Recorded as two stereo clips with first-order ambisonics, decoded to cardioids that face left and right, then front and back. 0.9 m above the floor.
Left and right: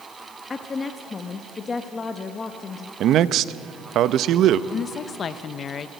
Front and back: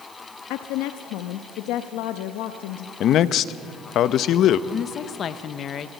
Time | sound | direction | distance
0.5 | a woman speaking | 20° left | 0.7 m
3.0 | a man speaking | 45° right | 0.5 m
4.7 | a woman speaking | 40° left | 0.6 m